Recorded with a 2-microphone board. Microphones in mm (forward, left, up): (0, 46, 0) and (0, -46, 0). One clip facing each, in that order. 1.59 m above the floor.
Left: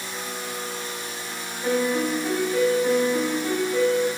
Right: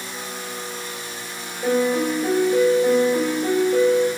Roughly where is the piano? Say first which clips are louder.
Right 3 dB; right.